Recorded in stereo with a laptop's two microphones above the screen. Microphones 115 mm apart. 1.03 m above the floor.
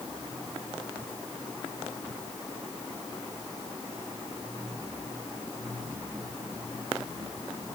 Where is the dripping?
I don't hear dripping.